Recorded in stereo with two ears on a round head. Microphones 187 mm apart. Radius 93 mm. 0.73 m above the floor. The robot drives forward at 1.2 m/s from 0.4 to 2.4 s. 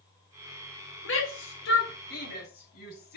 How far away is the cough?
I don't hear a cough.